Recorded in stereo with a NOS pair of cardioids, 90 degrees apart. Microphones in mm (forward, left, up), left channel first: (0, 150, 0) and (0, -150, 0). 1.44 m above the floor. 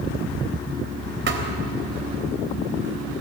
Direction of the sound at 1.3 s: 40° right.